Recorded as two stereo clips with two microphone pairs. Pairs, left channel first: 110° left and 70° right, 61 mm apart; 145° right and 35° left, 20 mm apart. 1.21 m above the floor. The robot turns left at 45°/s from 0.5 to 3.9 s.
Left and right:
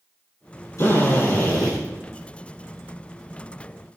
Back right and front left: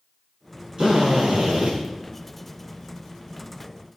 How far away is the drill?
About 7 m.